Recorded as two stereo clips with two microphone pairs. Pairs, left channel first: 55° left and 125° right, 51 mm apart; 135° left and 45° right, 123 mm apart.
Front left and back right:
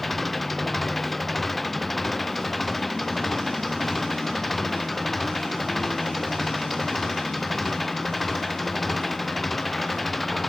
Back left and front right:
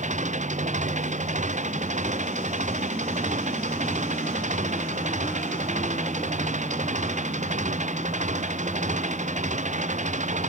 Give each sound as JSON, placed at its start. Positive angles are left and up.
{"t": 0.0, "sound": "an engine running", "azimuth_deg": -30}